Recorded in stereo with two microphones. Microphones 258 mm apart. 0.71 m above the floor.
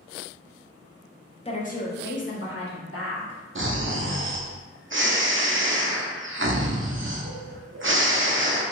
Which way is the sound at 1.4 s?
20° left (ahead or behind).